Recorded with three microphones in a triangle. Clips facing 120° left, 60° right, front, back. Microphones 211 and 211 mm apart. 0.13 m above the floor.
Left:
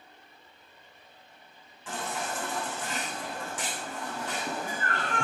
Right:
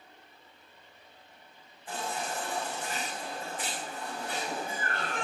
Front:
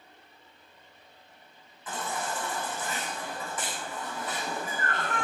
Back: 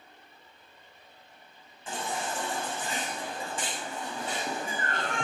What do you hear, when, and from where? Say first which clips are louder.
1.9 s a baby crying: left 1 dB, even; 115° left, 9 m